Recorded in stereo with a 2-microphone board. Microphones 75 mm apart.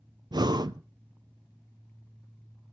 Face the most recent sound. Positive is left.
turn(degrees=-70)  # may be behind; listen again after turning